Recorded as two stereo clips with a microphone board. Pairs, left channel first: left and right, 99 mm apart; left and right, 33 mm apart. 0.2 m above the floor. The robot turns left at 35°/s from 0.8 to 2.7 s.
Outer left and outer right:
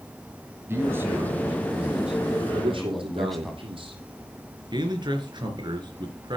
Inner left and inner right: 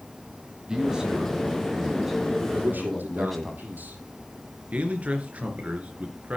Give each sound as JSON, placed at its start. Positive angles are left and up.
{"t": 0.7, "sound": "a man speaking", "side_deg": -25, "distance_m": 1.6}
{"t": 2.5, "sound": "a man speaking", "side_deg": -60, "distance_m": 6.5}
{"t": 4.7, "sound": "a man speaking", "side_deg": -50, "distance_m": 3.5}